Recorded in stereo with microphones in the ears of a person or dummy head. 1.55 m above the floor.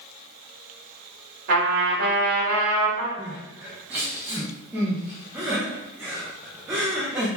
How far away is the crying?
About 1.0 m.